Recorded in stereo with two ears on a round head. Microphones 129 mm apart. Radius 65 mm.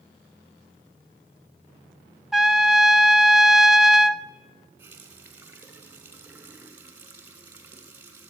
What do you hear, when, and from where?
2.3 s a trumpet: centre (ahead or behind), 0.8 m
4.8 s a running tap: 15° right (ahead or behind), 3.5 m